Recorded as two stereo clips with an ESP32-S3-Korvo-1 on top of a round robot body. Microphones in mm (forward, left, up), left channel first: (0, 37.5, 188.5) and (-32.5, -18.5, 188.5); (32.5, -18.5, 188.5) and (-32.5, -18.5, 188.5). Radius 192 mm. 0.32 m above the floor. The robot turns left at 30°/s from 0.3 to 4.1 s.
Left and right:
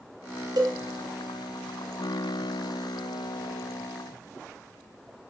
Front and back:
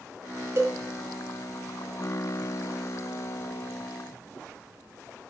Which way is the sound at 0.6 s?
130° right.